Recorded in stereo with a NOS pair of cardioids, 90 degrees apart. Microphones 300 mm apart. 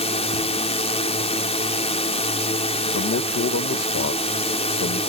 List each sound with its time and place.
0.0 s a drone: 20° left
2.9 s a man speaking: 50° left